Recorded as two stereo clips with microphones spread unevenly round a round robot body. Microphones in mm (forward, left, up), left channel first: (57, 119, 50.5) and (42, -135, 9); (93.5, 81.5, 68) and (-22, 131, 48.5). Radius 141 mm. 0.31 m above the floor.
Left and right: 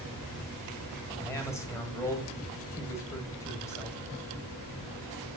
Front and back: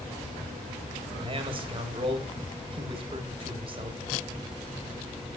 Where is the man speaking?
170° left, 1.6 m.